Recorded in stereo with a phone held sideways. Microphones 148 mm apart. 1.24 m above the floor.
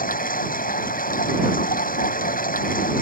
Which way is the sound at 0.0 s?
70° left (ahead or behind).